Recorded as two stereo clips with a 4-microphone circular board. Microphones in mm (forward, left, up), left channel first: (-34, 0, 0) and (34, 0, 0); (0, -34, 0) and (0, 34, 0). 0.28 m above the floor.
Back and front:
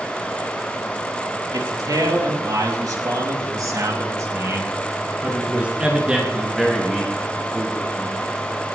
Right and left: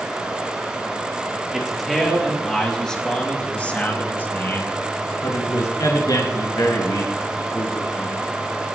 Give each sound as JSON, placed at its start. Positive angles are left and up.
{"t": 1.5, "sound": "a man speaking", "azimuth_deg": 5, "distance_m": 5.0}